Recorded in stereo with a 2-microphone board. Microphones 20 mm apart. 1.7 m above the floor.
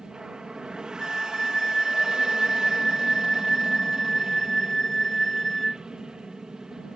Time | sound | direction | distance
0.0 | an aircraft | 40° right (ahead or behind) | ?
1.0 | a flute | 25° left (ahead or behind) | ?